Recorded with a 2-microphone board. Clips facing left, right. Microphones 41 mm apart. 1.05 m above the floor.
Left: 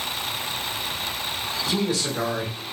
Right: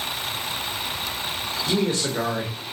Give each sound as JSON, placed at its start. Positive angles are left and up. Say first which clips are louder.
{"t": 1.7, "sound": "a man speaking", "louder": "right 2 dB", "side_deg": -40, "distance_m": 1.0}